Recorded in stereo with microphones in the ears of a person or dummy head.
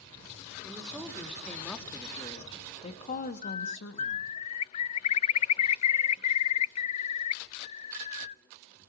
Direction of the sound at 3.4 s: 35° left (ahead or behind).